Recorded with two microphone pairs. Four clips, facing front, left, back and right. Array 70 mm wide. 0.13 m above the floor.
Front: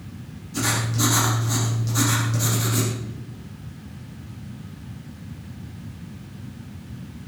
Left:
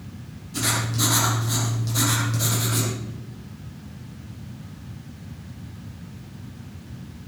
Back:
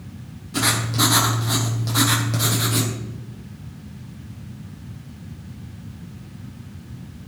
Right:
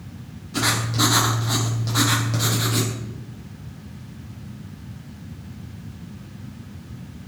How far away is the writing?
About 5 m.